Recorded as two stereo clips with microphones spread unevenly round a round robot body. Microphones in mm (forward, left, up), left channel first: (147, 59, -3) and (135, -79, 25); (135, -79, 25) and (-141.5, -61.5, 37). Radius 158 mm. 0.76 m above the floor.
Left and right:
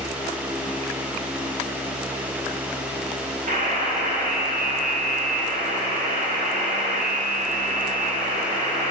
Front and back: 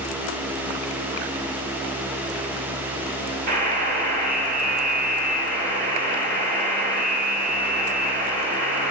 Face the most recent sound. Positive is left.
turn(degrees=-130)